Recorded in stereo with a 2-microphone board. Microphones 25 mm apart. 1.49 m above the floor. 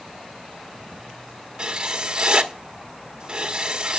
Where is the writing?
30° right (ahead or behind), 1.4 m.